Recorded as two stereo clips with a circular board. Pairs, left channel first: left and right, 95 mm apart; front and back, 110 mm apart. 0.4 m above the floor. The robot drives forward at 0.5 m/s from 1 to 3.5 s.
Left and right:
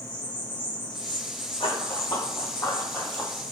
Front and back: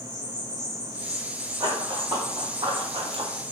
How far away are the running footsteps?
About 1.4 m.